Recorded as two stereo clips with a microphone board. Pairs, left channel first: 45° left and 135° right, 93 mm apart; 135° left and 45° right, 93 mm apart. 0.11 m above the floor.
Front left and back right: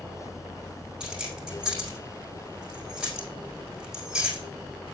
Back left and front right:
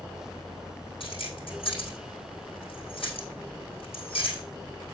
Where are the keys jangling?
145° left, 4 m.